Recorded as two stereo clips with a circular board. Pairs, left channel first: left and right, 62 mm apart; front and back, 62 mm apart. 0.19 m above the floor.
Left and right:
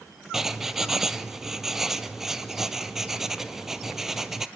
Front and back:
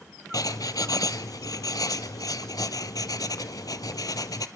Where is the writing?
5° right, 0.7 m.